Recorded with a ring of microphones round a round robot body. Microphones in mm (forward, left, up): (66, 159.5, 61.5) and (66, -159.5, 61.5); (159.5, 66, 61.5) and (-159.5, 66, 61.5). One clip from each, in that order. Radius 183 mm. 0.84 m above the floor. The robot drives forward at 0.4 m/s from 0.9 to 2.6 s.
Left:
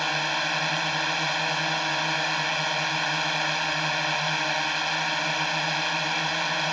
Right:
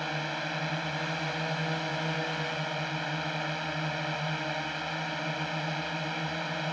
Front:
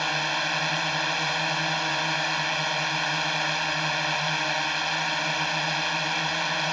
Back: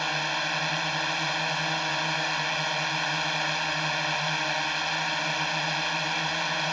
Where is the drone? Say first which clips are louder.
Left 8 dB, front 2 dB; 85° left.